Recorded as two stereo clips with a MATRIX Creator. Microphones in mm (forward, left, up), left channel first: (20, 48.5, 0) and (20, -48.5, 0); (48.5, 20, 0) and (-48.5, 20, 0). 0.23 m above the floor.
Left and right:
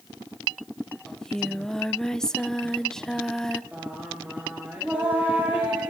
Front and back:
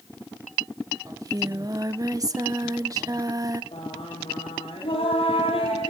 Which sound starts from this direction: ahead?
Singing, at 3.7 s.